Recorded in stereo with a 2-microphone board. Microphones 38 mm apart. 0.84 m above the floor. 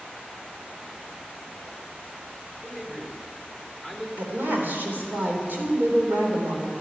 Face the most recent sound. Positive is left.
turn(degrees=-60)  # may be behind; listen again after turning